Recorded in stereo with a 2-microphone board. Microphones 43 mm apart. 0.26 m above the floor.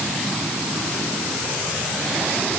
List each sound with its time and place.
Only background noise.